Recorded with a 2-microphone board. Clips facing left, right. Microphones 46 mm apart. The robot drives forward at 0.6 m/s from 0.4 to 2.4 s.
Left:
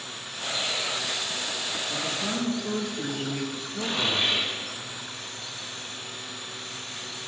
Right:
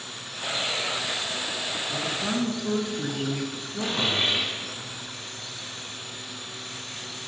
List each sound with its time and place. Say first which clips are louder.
1.9 s a man speaking: right 2 dB; 20° right (ahead or behind), 1.5 m
3.8 s a dropped coin: right 1 dB; 35° right (ahead or behind), 4 m